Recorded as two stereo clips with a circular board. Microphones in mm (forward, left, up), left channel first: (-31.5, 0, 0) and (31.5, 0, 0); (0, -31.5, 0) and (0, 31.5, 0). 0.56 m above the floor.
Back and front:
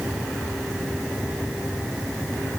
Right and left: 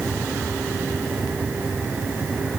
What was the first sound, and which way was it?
Only background noise.